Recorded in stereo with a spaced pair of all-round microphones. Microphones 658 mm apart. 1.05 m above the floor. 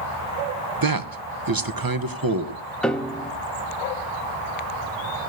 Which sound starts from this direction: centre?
A piano, at 2.8 s.